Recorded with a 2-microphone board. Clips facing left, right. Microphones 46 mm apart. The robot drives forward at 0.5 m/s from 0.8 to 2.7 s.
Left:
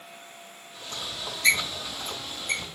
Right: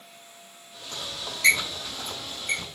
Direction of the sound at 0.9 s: 70° right (ahead or behind).